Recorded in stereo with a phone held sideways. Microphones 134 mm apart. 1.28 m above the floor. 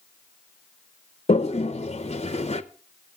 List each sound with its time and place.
1.3 s a toilet flushing: 50° left (ahead or behind), 0.7 m